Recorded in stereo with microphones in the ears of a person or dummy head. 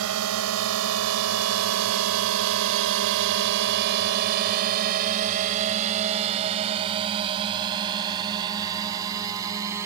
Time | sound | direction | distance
0.0 | a drone | 65° right (ahead or behind) | ?